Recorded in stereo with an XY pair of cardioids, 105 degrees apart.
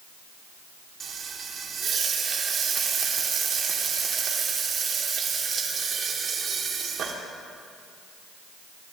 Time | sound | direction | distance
1.0 | frying | 50° right | 2.5 m